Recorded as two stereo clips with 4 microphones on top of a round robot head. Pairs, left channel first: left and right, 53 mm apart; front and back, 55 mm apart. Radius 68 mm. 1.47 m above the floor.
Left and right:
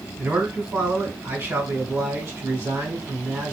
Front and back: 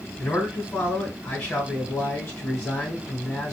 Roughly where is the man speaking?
Ahead right.